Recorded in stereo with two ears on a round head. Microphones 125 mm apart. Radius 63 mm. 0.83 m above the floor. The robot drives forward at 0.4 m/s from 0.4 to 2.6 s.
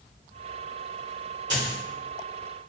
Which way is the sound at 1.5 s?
30° right (ahead or behind).